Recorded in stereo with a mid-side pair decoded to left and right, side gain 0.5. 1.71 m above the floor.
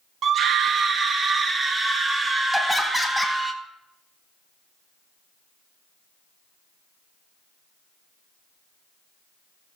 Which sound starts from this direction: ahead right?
A scream, at 0.2 s.